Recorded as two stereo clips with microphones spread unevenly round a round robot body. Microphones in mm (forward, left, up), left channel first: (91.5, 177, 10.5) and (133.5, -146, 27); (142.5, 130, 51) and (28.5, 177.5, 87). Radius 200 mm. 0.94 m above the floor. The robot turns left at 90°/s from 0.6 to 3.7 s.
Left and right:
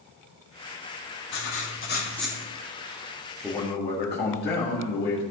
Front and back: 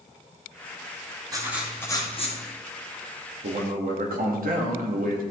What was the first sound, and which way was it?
Writing, 95° left.